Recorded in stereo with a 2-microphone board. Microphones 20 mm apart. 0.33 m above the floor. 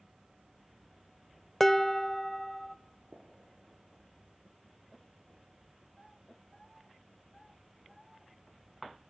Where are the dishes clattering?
15° left (ahead or behind), 0.5 m.